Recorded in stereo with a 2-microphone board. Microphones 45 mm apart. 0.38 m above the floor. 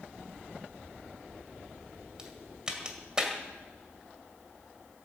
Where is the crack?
20° right (ahead or behind), 2 m.